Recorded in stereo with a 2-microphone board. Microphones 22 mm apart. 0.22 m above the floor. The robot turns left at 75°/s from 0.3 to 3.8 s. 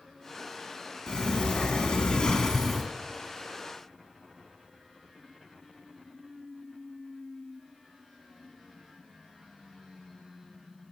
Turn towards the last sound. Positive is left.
turn(degrees=-70)